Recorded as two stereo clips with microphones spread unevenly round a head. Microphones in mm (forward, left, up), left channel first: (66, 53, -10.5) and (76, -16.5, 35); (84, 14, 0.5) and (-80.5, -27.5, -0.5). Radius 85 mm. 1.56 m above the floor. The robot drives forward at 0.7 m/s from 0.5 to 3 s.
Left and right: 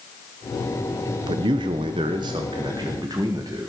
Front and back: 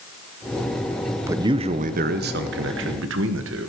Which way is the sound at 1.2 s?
85° right.